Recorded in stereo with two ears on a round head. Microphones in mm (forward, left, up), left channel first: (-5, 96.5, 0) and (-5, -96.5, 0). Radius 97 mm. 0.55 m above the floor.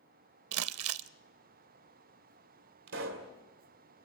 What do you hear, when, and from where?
0.5 s crumpling: 75° right (ahead or behind), 0.6 m
2.9 s a pop: 60° right (ahead or behind), 2.5 m